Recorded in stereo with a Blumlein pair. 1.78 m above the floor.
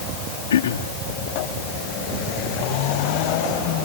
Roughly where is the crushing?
I don't hear crushing.